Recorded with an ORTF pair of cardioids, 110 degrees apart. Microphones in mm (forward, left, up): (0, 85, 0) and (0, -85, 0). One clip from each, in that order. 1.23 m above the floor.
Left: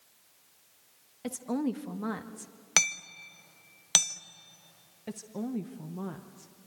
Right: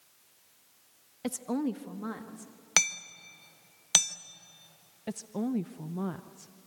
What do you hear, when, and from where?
1.2 s a woman speaking: 20° right, 1.1 m; by 2.5 s 35° left, 1.9 m
2.8 s hammering: straight ahead, 1.1 m
5.1 s a woman speaking: 20° right, 0.9 m